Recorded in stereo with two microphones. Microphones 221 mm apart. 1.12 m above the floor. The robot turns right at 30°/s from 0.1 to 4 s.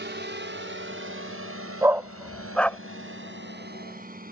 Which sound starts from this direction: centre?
A dog barking, at 1.8 s.